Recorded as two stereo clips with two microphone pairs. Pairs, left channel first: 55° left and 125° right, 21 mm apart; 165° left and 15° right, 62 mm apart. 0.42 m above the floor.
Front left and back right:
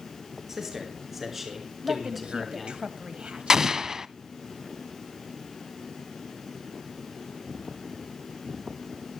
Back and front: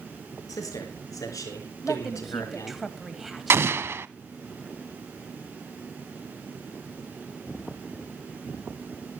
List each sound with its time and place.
0.5 s a man speaking: 165° left, 5 m; by 2.8 s 140° left, 3.5 m
1.8 s a woman speaking: 100° right, 2 m
3.5 s an explosion: 60° right, 0.5 m